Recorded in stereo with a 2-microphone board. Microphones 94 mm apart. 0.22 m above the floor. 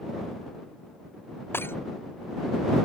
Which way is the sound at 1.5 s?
25° left (ahead or behind).